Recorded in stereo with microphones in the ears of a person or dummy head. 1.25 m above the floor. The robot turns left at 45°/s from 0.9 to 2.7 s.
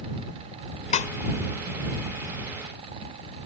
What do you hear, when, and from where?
0.9 s a snare drum: 45° left (ahead or behind); by 1.1 s 50° left (ahead or behind)